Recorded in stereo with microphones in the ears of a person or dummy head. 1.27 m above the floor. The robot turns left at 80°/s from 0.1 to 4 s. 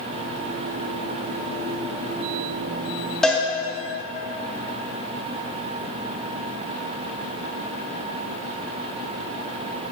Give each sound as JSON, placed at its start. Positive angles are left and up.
{"t": 3.2, "sound": "a cowbell", "side_deg": 0, "distance_m": 1.7}